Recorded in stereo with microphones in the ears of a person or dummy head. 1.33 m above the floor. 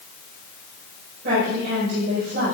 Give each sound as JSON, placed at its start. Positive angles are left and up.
{"t": 1.2, "sound": "a woman speaking", "side_deg": -70, "distance_m": 4.5}